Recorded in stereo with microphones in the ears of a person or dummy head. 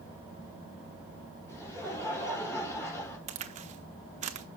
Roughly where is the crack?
Right.